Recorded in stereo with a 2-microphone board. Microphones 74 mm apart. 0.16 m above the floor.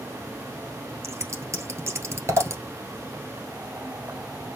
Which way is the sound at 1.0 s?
40° right (ahead or behind).